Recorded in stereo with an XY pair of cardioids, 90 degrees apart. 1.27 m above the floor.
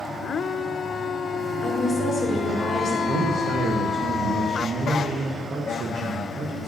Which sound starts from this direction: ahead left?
A woman speaking, at 1.6 s.